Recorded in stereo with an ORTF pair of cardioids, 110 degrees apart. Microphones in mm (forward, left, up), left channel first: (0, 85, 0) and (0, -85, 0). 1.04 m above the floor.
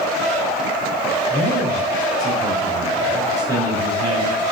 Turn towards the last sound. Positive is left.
turn(degrees=-30)